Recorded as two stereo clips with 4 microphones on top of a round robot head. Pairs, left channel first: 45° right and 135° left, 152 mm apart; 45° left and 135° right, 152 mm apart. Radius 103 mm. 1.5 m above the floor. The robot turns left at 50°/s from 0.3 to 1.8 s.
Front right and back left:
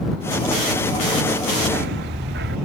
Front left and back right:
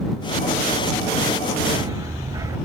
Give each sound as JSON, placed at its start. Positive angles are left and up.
{"t": 1.6, "sound": "a dog barking", "azimuth_deg": 160}